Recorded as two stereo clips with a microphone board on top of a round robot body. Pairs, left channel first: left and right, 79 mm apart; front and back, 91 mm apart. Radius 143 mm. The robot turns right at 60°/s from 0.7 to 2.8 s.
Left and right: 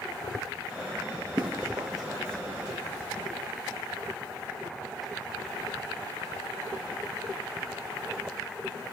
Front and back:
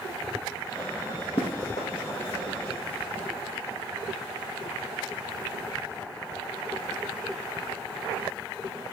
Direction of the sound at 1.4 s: 15° right.